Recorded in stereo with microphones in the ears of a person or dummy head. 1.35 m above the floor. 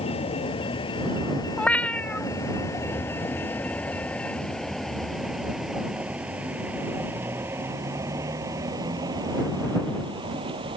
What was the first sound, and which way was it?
A vehicle, 30° left (ahead or behind).